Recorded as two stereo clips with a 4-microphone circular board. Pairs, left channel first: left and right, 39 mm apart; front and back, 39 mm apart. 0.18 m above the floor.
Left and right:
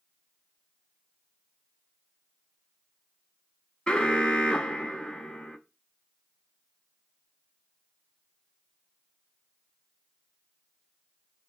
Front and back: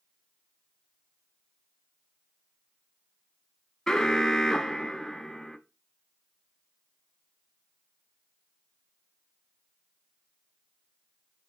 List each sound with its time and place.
3.9 s an alarm: 55° left, 1.0 m